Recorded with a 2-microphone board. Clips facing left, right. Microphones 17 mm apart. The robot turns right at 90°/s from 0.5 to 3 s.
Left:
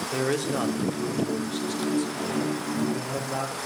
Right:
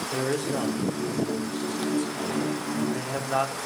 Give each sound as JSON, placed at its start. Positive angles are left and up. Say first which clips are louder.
{"t": 0.1, "sound": "a man speaking", "louder": "left 1 dB", "azimuth_deg": 30, "distance_m": 3.0}